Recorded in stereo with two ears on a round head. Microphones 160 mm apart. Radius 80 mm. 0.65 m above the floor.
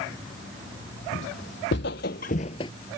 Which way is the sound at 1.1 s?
75° left (ahead or behind).